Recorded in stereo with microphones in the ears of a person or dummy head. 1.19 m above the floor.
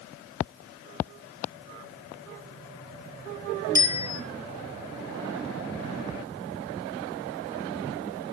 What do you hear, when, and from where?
3.8 s a bicycle bell: 15° right (ahead or behind), 3 m